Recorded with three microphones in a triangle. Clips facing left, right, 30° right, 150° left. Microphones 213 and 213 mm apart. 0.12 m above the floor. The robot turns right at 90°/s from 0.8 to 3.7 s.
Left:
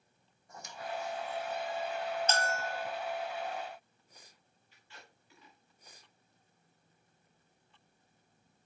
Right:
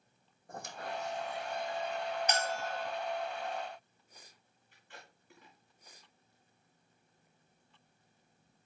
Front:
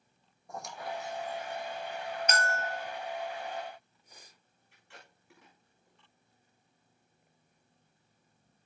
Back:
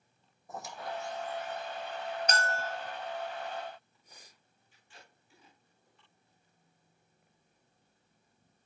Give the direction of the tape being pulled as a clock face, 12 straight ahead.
2 o'clock.